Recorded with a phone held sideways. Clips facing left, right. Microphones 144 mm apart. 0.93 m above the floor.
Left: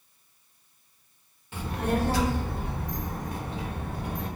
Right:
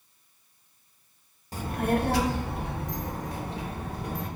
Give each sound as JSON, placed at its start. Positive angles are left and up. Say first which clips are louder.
{"t": 1.5, "sound": "a child speaking", "louder": "right 1 dB", "side_deg": -35, "distance_m": 0.5}